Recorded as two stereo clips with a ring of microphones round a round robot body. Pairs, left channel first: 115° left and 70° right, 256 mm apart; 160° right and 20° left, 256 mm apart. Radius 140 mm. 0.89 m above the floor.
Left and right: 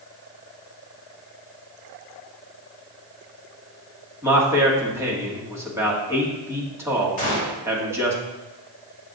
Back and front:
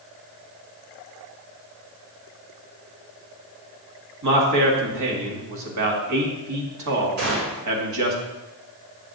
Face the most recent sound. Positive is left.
turn(degrees=50)